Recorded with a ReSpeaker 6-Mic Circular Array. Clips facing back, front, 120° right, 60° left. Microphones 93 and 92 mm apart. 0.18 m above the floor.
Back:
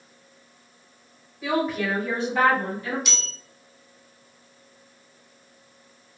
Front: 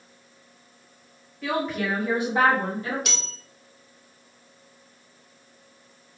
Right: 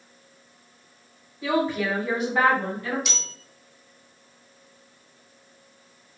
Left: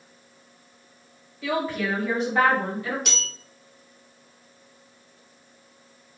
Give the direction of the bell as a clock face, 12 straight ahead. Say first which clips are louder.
Front 1 dB, left 1 dB; 11 o'clock.